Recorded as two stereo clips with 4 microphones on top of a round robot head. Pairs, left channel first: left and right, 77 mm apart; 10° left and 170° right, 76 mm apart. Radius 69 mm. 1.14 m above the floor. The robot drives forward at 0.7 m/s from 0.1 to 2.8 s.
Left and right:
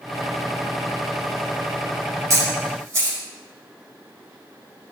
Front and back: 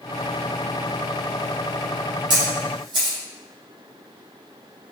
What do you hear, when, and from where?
2.3 s a camera shutter: 145° right, 7 m